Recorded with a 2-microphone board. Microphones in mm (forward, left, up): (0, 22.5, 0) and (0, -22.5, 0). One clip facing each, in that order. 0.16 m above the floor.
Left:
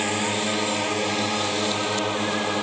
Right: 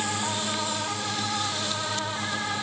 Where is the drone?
45° left (ahead or behind); by 2.6 s 70° left (ahead or behind).